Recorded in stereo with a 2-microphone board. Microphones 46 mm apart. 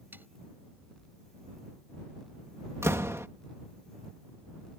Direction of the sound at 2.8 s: 85° right.